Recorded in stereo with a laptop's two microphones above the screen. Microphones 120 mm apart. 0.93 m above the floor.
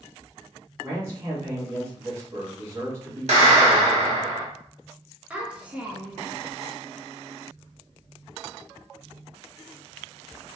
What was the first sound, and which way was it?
A man speaking, 25° right (ahead or behind).